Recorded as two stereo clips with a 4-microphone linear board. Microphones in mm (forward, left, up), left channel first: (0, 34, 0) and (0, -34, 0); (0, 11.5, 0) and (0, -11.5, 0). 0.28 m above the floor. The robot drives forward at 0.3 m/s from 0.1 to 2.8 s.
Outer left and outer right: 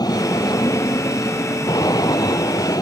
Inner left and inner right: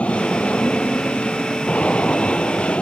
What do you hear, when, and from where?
0.0 s an aircraft: 75° left (ahead or behind)